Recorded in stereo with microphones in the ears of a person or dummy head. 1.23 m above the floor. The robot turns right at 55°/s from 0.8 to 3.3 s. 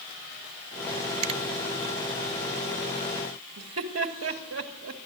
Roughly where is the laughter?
Right.